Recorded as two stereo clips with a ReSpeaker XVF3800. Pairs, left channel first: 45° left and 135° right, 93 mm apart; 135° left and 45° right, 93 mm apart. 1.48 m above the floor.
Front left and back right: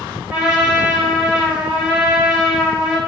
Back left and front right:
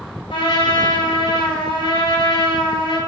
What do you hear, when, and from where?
0.3 s a trumpet: 145° left, 4.5 m